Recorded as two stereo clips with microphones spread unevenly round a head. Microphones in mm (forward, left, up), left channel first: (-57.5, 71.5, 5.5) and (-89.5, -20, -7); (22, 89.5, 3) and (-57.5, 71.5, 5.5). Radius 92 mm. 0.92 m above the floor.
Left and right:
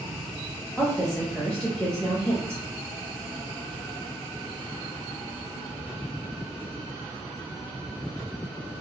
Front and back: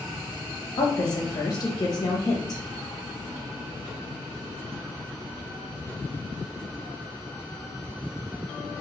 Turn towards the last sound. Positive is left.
turn(degrees=-15)